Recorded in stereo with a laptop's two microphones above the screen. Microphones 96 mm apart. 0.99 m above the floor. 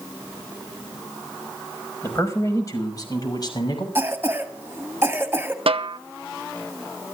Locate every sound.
2.0 s a man speaking: 30° left (ahead or behind), 5 m; by 3.9 s 50° left (ahead or behind), 6 m
4.0 s a cough: 25° right (ahead or behind), 1.6 m
5.7 s a snare drum: 75° right (ahead or behind), 0.8 m